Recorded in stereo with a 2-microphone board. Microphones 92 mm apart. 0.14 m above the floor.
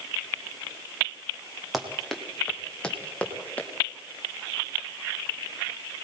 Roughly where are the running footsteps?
Centre.